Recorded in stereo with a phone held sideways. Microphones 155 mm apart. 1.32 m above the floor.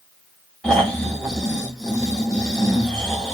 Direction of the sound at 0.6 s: 5° left (ahead or behind).